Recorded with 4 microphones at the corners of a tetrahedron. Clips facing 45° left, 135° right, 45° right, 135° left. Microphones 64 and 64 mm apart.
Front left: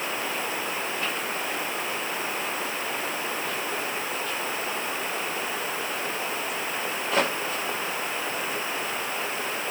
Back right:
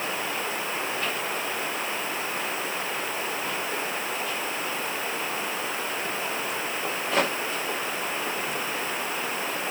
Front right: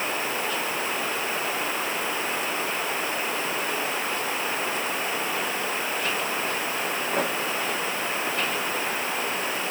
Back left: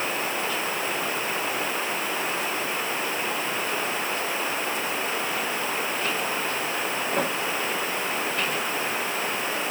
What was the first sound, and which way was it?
Only background noise.